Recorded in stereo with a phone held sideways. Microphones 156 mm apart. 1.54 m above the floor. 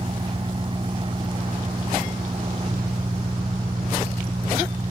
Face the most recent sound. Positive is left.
turn(degrees=-35)  # may be behind; listen again after turning